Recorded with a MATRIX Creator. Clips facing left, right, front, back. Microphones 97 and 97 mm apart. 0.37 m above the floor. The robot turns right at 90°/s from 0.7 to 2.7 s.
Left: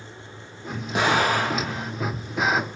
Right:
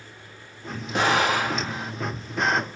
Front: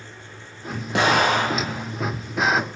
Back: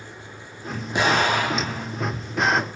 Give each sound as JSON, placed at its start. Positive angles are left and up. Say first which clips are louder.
{"t": 0.9, "sound": "an explosion", "louder": "left 1 dB, front 2 dB", "azimuth_deg": 5, "distance_m": 4.5}